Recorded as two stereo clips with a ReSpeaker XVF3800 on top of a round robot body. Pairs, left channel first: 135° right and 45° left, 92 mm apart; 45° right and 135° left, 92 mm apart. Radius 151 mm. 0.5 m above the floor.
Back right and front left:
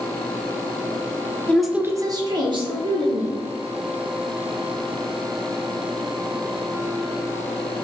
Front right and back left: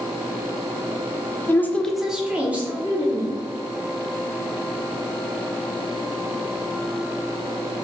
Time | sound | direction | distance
1.5 | a woman speaking | 80° right | 0.7 m